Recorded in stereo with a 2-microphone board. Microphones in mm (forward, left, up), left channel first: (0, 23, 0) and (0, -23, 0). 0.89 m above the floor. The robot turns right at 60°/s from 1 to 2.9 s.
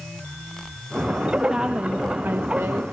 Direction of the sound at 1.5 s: 165° right.